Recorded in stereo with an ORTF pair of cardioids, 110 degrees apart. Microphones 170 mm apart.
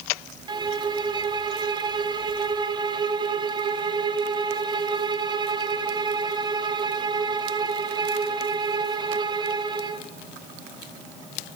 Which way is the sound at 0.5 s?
25° right.